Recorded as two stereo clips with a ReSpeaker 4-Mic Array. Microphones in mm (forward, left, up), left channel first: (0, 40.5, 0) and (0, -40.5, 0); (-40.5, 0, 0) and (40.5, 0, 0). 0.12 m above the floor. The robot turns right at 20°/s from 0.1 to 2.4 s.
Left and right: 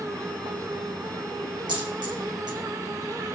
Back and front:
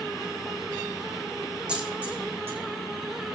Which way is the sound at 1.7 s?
80° right.